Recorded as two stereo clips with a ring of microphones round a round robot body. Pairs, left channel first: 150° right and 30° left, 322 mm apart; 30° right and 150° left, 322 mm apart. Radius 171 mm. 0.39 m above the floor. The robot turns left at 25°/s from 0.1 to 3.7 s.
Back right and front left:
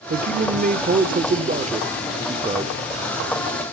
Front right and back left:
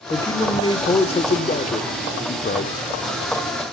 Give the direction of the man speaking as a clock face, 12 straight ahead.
11 o'clock.